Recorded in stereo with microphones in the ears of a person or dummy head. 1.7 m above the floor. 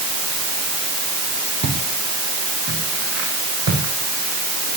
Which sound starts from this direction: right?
Footsteps, at 1.6 s.